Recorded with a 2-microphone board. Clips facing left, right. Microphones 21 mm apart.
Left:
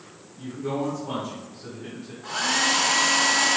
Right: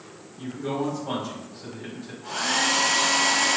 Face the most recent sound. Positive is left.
turn(degrees=20)  # may be behind; listen again after turning